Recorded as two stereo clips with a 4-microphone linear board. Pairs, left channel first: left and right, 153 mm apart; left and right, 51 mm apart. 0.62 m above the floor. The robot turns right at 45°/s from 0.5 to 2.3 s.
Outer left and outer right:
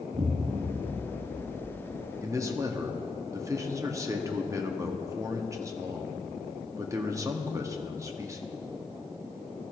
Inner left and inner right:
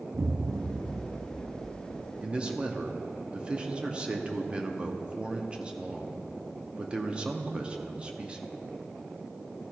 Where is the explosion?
75° right, 0.7 m; by 2.1 s 5° right, 0.7 m.